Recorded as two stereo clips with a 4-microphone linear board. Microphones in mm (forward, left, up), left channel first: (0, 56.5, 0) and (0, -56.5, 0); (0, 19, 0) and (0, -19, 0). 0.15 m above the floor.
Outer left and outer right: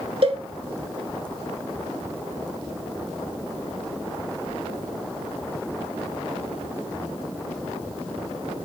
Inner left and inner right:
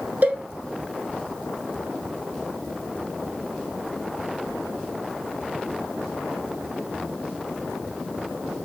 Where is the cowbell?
55° right (ahead or behind), 0.7 m.